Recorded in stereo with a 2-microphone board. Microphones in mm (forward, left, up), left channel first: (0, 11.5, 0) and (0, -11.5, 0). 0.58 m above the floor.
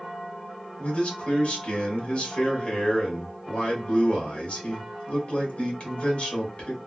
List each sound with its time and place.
0.8 s a man speaking: 60° left (ahead or behind), 2.0 m